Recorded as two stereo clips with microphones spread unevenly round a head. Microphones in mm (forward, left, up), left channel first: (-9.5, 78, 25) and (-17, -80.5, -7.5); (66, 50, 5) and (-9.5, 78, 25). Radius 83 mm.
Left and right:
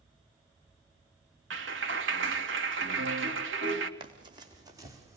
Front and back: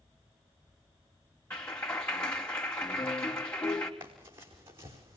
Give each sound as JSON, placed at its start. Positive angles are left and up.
{"t": 1.5, "sound": "a clap", "azimuth_deg": -100, "distance_m": 3.0}
{"t": 4.0, "sound": "running footsteps", "azimuth_deg": -155, "distance_m": 5.0}